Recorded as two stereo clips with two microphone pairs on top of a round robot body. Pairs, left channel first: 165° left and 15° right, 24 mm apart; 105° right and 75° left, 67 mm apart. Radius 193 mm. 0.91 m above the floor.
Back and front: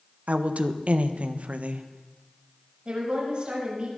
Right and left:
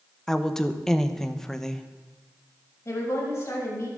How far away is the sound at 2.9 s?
About 7 m.